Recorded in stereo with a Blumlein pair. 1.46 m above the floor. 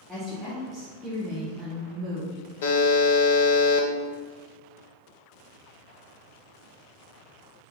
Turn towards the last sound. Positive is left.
turn(degrees=55)